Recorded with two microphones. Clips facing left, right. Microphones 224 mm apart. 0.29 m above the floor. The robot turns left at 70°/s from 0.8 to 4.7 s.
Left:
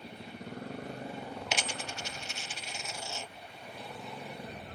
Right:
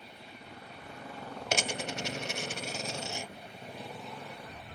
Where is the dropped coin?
45° right (ahead or behind); by 3.3 s 5° right (ahead or behind).